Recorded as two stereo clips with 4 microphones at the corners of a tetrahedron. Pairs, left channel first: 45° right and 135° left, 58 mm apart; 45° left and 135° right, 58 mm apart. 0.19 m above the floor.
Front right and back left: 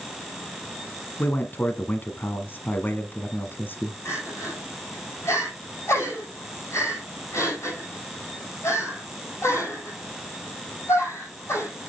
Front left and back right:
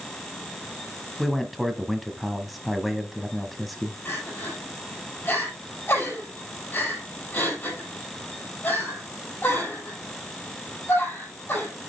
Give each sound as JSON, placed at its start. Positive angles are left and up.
{"t": 1.2, "sound": "a man speaking", "azimuth_deg": -45, "distance_m": 1.1}
{"t": 4.0, "sound": "crying", "azimuth_deg": -5, "distance_m": 4.5}